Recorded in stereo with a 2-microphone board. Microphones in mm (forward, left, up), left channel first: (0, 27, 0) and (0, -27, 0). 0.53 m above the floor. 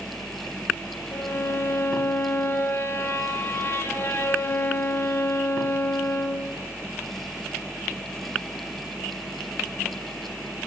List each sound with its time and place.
1.1 s a violin: 45° left (ahead or behind), 0.5 m